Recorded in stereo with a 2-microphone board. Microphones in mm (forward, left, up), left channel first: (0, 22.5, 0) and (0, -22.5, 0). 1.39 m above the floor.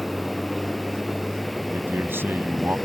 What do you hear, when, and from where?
0.0 s a vehicle: 5° left (ahead or behind)
1.7 s a man speaking: 55° right (ahead or behind)